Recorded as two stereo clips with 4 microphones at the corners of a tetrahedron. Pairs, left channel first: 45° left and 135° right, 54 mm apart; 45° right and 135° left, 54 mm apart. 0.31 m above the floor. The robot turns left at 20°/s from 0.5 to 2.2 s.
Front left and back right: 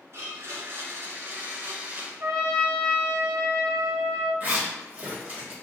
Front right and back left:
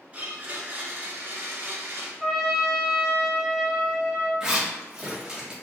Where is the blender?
160° right, 1.0 m; by 2.1 s 165° left, 1.0 m.